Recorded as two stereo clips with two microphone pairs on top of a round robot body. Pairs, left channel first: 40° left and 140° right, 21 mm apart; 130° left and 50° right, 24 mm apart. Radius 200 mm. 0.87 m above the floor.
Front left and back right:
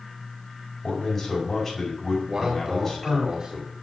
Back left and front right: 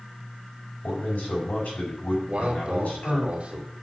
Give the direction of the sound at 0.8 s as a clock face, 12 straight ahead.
8 o'clock.